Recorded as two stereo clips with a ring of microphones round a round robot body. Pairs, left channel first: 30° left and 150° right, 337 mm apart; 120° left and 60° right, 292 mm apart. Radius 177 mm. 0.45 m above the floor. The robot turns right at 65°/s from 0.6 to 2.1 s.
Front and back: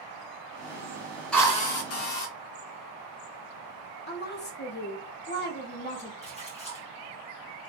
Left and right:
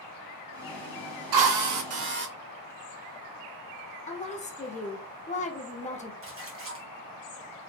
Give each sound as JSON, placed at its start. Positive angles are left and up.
{"t": 1.3, "sound": "a drill", "azimuth_deg": -60, "distance_m": 0.9}
{"t": 4.1, "sound": "a woman speaking", "azimuth_deg": 70, "distance_m": 0.9}
{"t": 6.2, "sound": "a splash", "azimuth_deg": -35, "distance_m": 1.4}